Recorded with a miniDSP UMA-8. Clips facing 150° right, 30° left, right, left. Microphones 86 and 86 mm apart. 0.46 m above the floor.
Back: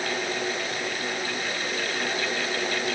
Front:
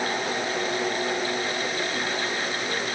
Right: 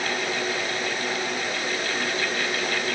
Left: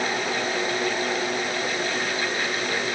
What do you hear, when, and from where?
Only background noise.